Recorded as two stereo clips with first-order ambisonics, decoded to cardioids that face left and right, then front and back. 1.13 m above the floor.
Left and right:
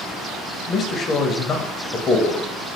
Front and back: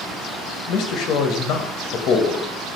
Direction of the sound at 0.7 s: 25° left.